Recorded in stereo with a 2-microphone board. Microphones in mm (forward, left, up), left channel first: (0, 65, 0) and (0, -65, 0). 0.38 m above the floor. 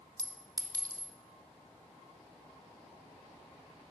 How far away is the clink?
About 0.6 m.